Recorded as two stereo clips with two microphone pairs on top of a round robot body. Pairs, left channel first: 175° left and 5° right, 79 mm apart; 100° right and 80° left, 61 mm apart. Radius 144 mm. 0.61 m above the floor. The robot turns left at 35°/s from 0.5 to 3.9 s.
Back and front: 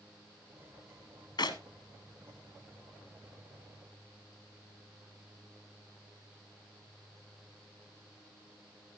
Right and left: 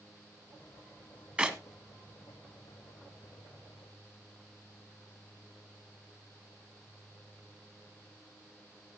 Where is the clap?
145° left, 1.9 m; by 1.6 s 135° left, 1.9 m.